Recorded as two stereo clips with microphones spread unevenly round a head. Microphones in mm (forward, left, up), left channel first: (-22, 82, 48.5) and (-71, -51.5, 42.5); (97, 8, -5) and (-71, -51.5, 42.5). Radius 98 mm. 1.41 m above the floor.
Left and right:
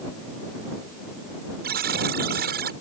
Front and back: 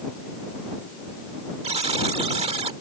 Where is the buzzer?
105° right.